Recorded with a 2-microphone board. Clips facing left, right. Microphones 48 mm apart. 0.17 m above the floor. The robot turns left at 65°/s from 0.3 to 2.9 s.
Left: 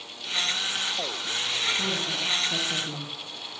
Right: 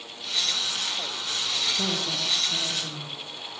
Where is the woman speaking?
145° right, 6 m; by 3.1 s 135° left, 6 m.